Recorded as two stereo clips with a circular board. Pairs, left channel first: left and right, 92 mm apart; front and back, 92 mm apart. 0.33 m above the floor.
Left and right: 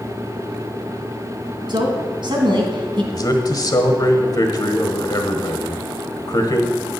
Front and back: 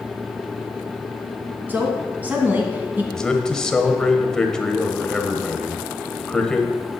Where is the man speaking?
80° left, 1.2 m.